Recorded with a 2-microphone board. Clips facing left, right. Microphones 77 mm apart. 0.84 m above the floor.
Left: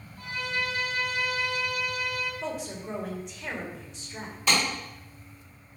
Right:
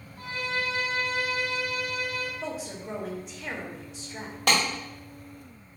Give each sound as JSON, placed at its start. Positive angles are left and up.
{"t": 0.2, "sound": "a violin", "side_deg": -40, "distance_m": 1.1}
{"t": 2.4, "sound": "a woman speaking", "side_deg": 0, "distance_m": 1.2}
{"t": 4.5, "sound": "a clap", "side_deg": -65, "distance_m": 1.9}